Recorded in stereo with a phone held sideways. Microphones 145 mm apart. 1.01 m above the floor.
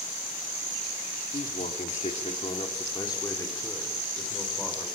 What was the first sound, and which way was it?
A man speaking, 70° left (ahead or behind).